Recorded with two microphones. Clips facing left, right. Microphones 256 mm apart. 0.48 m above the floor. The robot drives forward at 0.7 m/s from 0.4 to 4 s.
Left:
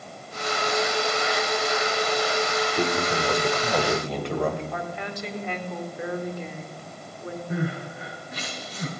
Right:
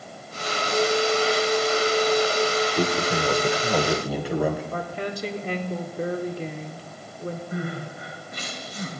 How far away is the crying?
About 6.5 m.